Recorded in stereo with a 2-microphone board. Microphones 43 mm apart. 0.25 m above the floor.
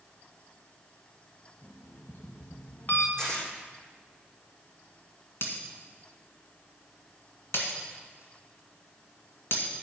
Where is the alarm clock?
55° left (ahead or behind), 1.4 m.